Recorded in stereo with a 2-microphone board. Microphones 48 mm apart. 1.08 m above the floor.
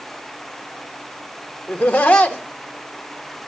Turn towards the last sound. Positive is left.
turn(degrees=25)  # may be behind; listen again after turning